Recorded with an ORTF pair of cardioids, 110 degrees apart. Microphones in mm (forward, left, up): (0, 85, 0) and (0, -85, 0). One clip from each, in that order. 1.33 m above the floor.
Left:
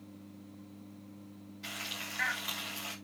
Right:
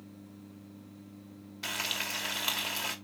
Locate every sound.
1.6 s frying: 60° right, 2.5 m